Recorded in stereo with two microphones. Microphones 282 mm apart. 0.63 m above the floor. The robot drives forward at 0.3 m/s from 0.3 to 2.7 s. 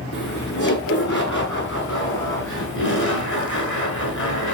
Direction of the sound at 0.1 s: 85° left.